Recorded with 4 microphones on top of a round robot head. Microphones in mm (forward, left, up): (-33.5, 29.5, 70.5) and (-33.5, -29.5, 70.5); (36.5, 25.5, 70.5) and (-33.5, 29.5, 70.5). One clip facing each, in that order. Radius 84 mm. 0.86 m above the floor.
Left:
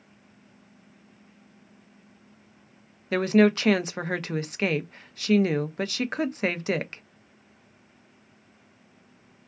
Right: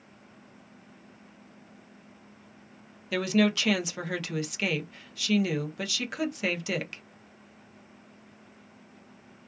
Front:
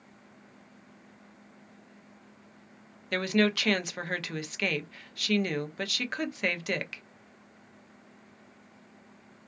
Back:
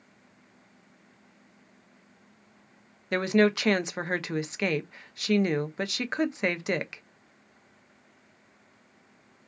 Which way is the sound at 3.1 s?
120° left.